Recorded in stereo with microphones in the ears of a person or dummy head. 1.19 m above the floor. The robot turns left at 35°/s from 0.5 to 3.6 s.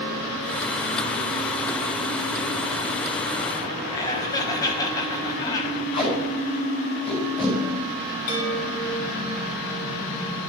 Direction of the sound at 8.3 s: 70° left (ahead or behind).